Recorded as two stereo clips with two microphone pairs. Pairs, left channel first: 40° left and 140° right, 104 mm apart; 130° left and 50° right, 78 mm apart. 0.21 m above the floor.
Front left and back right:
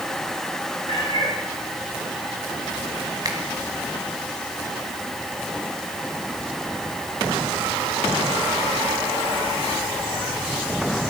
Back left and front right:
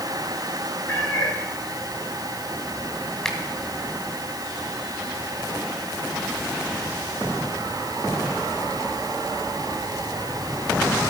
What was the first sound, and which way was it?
A cat meowing, 65° left.